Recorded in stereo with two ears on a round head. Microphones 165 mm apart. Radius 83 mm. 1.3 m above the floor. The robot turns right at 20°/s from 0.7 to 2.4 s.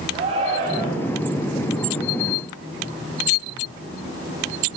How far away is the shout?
About 9 m.